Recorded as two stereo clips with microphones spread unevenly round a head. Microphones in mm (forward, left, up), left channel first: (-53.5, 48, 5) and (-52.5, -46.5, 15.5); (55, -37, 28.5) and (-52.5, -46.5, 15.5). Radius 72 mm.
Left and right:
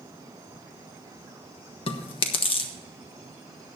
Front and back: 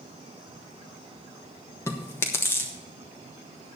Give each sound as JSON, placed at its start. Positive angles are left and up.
{"t": 1.9, "sound": "chewing", "azimuth_deg": 80, "distance_m": 1.2}